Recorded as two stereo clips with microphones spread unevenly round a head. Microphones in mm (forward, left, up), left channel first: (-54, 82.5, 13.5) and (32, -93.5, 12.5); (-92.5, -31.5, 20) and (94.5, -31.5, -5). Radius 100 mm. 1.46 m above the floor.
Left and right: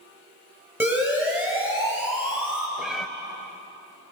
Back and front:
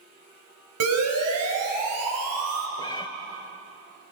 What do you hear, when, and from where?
0.8 s a siren: 15° left, 7.5 m
2.8 s a cat meowing: 150° right, 1.4 m